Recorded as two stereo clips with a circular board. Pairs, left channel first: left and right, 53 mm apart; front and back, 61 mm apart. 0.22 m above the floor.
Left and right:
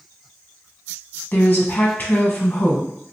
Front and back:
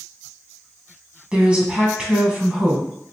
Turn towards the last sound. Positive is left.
turn(degrees=115)